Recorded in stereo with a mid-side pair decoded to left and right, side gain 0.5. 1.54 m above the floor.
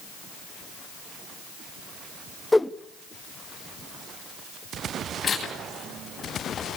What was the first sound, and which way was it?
A whoosh, 10° left.